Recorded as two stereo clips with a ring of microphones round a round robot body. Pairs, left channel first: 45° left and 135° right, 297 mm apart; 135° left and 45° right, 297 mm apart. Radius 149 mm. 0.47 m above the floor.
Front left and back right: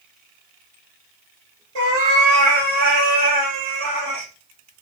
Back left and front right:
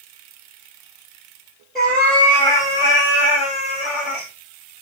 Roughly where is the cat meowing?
Behind right.